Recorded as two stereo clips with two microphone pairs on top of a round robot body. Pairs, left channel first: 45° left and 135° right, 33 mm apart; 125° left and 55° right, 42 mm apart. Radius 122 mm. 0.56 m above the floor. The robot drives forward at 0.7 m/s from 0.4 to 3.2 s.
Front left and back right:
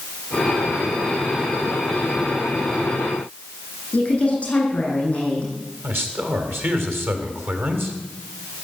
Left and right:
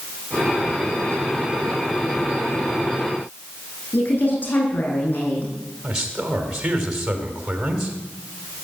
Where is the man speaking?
130° right, 3 m.